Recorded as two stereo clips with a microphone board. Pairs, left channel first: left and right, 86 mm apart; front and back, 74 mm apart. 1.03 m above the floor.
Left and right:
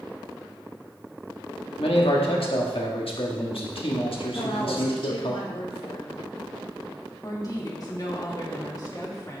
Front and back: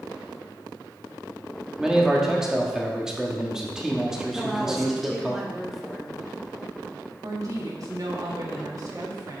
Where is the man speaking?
95° left, 1.6 m.